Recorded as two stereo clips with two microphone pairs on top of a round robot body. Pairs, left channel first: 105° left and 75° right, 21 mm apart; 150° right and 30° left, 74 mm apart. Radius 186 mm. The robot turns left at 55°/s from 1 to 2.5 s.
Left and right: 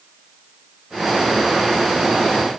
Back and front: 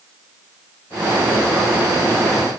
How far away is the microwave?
No microwave in this recording.